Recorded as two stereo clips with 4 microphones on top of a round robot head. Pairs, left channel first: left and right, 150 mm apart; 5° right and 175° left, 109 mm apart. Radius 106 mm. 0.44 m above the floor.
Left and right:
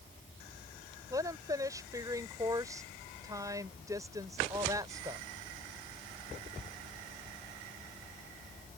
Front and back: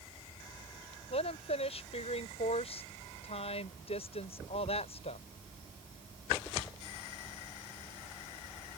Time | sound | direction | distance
1.1 | a woman speaking | 20° right | ?